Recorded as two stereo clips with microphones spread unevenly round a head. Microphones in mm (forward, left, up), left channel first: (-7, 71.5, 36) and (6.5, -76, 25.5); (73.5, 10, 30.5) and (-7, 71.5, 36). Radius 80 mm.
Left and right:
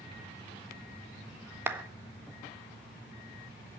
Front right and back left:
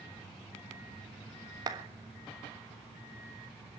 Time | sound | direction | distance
1.7 | a clap | 160° right | 1.3 m